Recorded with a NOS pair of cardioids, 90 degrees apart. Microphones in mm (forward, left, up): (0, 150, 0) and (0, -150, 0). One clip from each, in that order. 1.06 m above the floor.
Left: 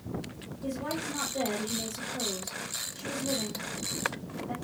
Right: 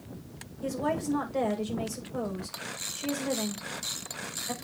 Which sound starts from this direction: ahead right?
A woman speaking, at 0.6 s.